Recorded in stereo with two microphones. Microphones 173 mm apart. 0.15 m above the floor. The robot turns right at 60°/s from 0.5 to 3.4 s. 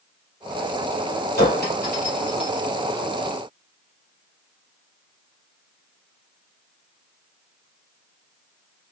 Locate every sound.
1.4 s a clink: 70° left (ahead or behind), 1.9 m; by 2.7 s 20° left (ahead or behind), 1.9 m